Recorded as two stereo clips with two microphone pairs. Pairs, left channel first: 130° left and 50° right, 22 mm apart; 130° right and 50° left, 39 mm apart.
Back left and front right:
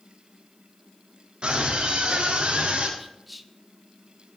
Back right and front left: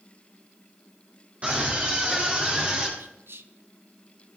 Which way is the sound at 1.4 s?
5° right.